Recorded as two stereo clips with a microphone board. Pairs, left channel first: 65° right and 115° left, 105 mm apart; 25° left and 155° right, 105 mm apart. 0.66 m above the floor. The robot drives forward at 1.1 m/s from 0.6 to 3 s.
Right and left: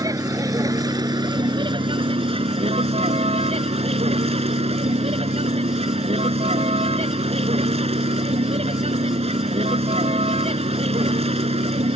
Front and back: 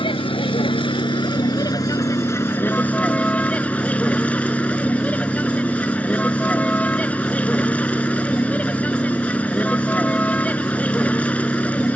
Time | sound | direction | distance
0.0 | a vehicle | 55° left | ?